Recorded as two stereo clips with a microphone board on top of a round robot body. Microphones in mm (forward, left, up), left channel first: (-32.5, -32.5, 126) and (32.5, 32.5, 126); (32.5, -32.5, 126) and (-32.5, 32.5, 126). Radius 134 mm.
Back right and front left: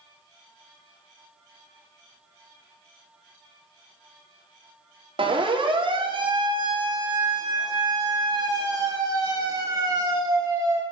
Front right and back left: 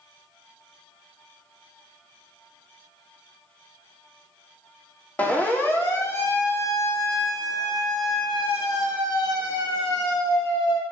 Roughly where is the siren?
Ahead left.